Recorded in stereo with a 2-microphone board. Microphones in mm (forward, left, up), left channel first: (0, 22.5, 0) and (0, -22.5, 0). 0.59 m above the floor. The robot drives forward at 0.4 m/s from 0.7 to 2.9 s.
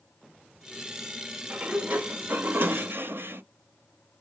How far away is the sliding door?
About 0.7 m.